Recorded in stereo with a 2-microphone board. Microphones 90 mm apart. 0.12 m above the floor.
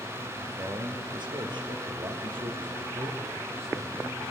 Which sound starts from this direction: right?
A man speaking, at 0.4 s.